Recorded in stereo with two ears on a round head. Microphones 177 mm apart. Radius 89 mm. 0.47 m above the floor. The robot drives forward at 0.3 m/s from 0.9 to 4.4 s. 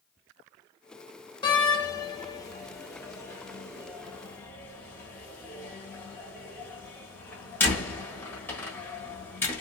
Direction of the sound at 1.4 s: 25° left (ahead or behind).